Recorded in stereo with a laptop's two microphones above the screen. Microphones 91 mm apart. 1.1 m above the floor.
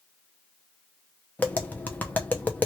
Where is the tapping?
15° left (ahead or behind), 0.6 m.